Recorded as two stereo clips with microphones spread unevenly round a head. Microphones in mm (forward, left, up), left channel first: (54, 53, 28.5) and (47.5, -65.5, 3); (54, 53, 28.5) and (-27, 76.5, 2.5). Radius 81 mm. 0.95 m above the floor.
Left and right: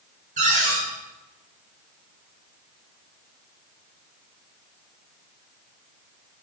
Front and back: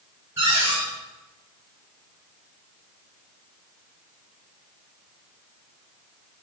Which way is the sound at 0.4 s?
125° right.